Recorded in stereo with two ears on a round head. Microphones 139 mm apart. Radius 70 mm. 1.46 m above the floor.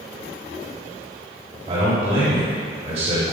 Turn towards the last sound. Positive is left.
turn(degrees=-40)  # may be behind; listen again after turning